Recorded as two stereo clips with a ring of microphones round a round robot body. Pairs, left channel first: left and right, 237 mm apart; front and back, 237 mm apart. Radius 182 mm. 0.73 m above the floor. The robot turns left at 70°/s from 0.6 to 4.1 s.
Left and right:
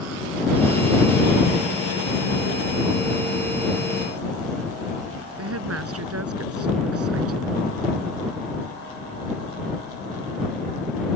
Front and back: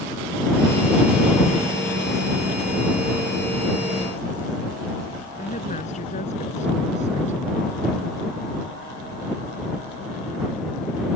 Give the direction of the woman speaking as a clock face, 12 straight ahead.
2 o'clock.